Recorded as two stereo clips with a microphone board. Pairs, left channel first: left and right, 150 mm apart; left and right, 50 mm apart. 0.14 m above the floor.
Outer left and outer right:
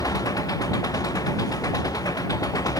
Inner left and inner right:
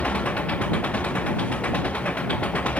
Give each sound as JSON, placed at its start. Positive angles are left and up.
{"t": 0.0, "sound": "an engine running", "side_deg": 25}